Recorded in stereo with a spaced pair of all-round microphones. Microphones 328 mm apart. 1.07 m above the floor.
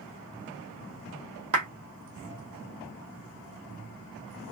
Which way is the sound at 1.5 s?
65° right (ahead or behind).